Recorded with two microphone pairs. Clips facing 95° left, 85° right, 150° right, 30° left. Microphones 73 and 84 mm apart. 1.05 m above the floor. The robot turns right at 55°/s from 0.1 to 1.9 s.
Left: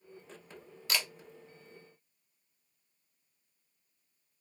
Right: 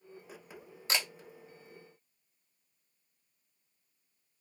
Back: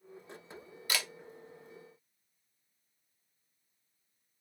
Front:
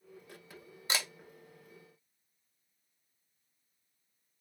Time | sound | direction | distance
0.9 | a camera shutter | 25° right | 0.6 m